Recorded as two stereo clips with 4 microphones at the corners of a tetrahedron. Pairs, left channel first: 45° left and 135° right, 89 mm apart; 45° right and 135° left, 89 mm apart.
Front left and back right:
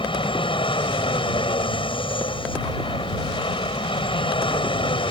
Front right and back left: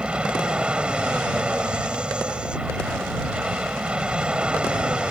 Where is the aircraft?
55° left.